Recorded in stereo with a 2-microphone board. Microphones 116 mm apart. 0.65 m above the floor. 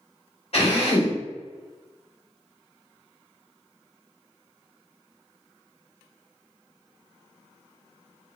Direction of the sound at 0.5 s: 60° left (ahead or behind).